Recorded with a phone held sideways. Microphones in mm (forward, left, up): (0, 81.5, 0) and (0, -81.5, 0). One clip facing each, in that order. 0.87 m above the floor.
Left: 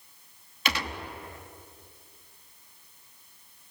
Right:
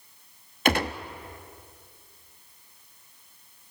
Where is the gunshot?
50° right (ahead or behind), 0.9 m.